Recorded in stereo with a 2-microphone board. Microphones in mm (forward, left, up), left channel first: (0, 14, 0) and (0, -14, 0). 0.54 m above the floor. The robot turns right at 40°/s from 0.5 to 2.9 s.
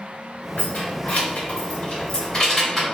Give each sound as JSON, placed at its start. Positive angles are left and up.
{"t": 0.6, "sound": "keys jangling", "side_deg": 70, "distance_m": 1.9}